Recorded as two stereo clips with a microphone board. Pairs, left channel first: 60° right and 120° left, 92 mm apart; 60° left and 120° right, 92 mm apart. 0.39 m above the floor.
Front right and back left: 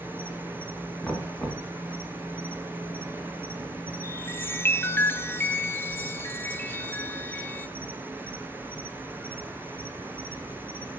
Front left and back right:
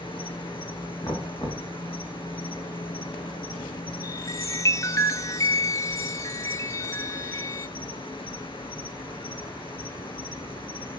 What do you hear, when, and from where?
0.0 s an insect: 55° left, 0.9 m
1.0 s knocking: 25° left, 3.5 m
4.0 s a chime: 5° left, 0.8 m